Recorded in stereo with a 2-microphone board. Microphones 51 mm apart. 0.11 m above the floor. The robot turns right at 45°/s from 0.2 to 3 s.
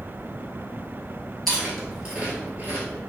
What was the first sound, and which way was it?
Chewing, 5° left (ahead or behind).